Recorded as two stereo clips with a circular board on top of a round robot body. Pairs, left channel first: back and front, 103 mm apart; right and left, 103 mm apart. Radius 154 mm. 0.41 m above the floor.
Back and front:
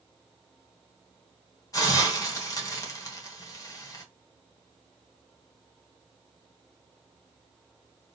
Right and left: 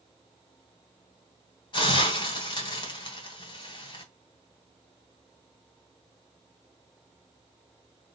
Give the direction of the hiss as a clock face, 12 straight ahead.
4 o'clock.